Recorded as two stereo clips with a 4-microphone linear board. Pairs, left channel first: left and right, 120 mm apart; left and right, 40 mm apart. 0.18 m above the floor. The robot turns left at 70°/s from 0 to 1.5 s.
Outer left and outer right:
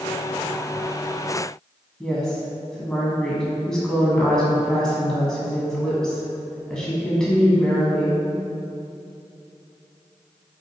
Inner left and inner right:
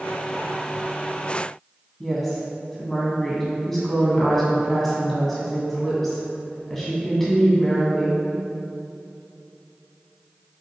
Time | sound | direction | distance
2.0 | a woman speaking | 5° left (ahead or behind) | 1.6 m